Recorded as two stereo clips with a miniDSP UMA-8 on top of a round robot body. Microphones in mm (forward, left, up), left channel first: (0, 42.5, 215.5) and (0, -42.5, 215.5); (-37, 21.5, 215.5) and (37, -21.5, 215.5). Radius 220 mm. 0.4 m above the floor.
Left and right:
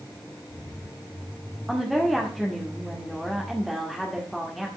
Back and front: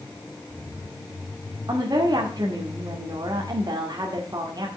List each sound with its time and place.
1.7 s a woman speaking: straight ahead, 2 m